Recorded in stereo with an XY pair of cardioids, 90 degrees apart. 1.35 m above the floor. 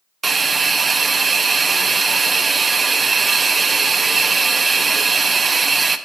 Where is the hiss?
35° right, 0.6 m.